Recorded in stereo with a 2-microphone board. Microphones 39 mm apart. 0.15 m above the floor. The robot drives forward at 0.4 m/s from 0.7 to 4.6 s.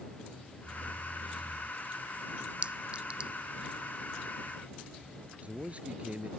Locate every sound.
2.6 s a clink: 35° right (ahead or behind); by 3.3 s 30° right (ahead or behind)
5.4 s a man speaking: 40° right (ahead or behind)